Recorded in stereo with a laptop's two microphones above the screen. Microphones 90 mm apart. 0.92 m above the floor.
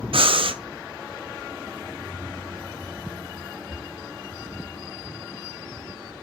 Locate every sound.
0.1 s breathing: 85° right, 0.6 m